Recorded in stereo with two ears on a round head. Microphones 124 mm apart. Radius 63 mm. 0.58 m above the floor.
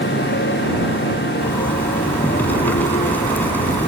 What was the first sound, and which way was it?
A motorcycle, 85° left.